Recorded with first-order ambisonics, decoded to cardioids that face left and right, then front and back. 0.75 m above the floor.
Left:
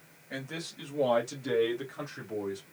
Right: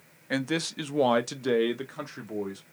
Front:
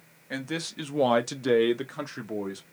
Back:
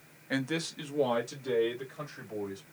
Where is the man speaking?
100° right, 0.6 m; by 2.6 s 15° right, 1.4 m.